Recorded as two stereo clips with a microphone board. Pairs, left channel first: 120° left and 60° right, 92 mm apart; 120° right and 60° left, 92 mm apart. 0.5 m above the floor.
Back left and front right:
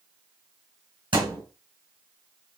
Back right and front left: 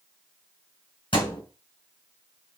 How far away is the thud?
About 2.5 m.